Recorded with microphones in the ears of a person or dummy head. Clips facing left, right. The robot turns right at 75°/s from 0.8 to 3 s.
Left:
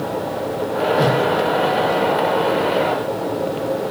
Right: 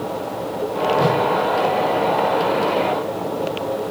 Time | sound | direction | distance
1.0 | a whoosh | 75° left (ahead or behind) | 1.8 m